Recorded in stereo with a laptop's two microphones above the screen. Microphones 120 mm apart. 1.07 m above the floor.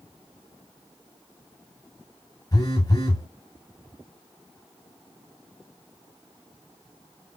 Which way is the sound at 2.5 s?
35° left (ahead or behind).